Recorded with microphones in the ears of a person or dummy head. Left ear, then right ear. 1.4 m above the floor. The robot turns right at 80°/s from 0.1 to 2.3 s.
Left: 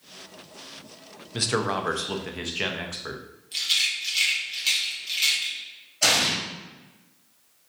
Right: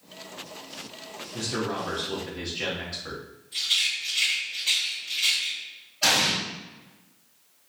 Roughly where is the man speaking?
Left.